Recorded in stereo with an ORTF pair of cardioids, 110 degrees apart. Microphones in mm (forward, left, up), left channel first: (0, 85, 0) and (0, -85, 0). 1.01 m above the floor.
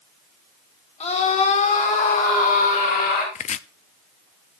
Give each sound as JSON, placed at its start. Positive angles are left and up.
{"t": 1.0, "sound": "a scream", "azimuth_deg": 40, "distance_m": 4.5}
{"t": 3.4, "sound": "chopping", "azimuth_deg": 45, "distance_m": 0.7}